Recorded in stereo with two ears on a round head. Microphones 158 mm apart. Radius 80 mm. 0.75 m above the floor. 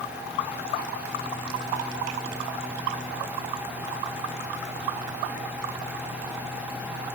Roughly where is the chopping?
I don't hear chopping.